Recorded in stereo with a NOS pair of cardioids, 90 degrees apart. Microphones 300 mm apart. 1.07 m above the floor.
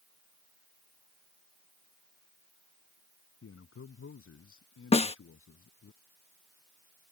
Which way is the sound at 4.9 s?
20° left.